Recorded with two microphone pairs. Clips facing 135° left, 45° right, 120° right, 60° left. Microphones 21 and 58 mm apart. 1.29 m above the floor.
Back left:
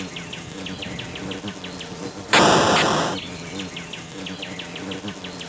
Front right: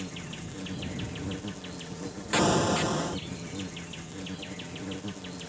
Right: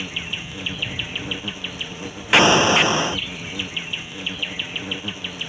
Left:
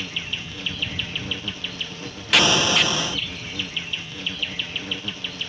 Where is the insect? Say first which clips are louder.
Back left 6 dB, right 1 dB; 165° left.